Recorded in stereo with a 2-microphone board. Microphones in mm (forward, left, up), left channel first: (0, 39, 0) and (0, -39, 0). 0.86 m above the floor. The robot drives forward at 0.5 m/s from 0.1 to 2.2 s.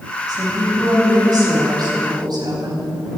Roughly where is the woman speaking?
Right.